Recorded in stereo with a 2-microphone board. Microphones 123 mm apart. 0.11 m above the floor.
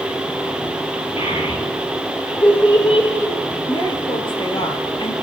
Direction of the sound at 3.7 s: 40° left (ahead or behind).